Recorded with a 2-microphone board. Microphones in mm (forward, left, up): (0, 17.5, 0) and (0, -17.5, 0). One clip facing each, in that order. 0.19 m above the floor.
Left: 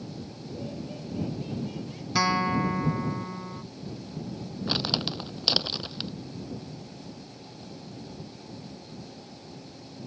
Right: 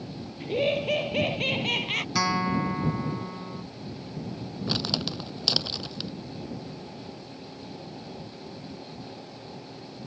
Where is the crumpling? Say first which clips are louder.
Left 1 dB; 10° left (ahead or behind).